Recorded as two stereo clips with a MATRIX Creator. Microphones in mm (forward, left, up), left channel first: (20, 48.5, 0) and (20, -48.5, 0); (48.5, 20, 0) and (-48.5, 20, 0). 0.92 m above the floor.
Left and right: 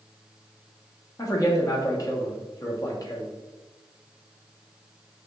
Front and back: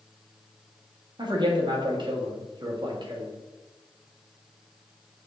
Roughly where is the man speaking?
Behind left.